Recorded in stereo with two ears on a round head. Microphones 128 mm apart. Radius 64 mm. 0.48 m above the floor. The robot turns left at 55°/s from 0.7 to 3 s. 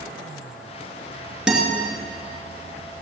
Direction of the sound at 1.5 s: 5° right (ahead or behind).